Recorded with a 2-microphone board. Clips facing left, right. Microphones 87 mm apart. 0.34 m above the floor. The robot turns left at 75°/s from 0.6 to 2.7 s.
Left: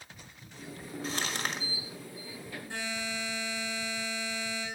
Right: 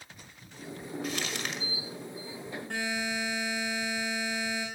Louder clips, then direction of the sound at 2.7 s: Right 4 dB; 60° right (ahead or behind).